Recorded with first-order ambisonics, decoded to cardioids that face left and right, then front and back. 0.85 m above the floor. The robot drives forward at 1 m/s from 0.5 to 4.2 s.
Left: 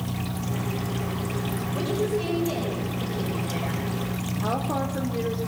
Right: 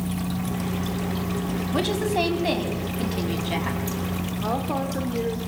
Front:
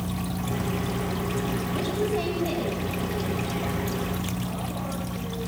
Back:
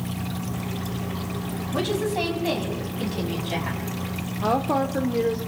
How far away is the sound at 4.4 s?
About 2.0 m.